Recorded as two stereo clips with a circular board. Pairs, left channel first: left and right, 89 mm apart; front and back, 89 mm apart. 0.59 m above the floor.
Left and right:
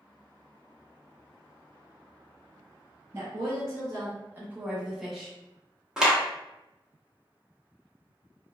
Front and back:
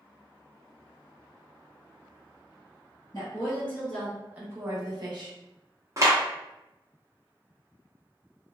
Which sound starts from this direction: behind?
A clap, at 6.0 s.